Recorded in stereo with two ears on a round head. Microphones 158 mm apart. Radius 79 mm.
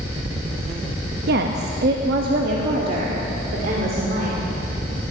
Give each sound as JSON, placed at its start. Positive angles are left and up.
{"t": 1.3, "sound": "a woman speaking", "side_deg": -60, "distance_m": 0.8}